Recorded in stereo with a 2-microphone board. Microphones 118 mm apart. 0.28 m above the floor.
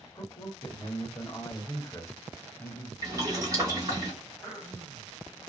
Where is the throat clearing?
10° right (ahead or behind), 2.0 m.